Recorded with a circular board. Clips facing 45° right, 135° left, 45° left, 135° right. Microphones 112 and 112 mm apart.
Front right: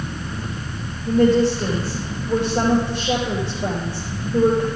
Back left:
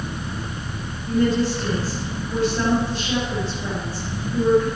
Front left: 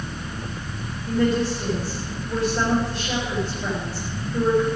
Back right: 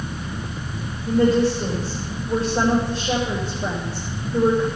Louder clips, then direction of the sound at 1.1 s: Front right 4 dB, back right 4 dB; 70° right.